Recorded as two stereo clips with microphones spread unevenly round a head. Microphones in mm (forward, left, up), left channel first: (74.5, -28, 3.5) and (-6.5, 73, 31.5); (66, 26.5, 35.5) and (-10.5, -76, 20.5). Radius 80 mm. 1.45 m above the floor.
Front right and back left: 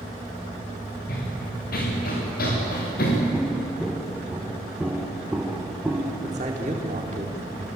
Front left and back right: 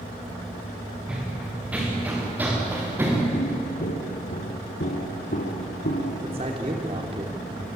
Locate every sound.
1.1 s running footsteps: 45° right, 7.5 m; by 3.2 s 55° right, 8.5 m
3.3 s footsteps: 45° left, 2.5 m; by 6.1 s 55° left, 4 m
6.2 s a man speaking: straight behind, 3.5 m